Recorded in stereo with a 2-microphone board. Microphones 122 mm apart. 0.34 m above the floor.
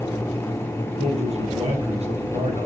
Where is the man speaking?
65° right (ahead or behind), 3.5 m.